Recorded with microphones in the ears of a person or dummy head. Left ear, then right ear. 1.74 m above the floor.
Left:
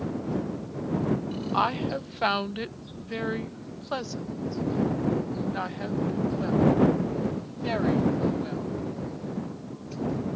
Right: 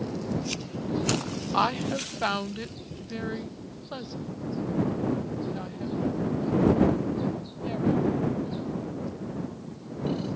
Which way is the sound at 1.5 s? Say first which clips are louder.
Even; 10° right (ahead or behind).